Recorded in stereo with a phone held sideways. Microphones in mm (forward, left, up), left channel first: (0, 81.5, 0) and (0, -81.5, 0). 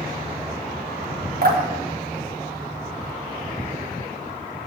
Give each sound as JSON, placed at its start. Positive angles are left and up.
{"t": 1.4, "sound": "dripping", "side_deg": -65, "distance_m": 1.4}